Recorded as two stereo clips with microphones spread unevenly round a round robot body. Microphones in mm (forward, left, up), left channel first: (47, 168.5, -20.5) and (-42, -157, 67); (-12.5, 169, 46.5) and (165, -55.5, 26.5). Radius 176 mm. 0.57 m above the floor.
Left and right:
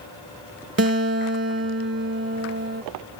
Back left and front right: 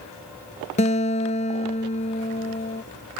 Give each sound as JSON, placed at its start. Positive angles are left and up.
{"t": 0.8, "sound": "a guitar", "azimuth_deg": -160}